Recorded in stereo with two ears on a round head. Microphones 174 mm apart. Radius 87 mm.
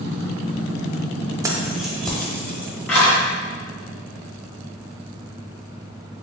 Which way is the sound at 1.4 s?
15° right (ahead or behind).